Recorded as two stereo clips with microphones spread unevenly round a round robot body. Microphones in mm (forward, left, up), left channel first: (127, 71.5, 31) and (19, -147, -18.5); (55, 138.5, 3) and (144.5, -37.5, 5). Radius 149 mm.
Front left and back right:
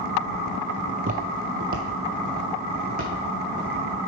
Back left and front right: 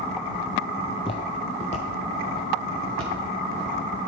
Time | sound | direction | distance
1.0 | footsteps | straight behind | 0.6 m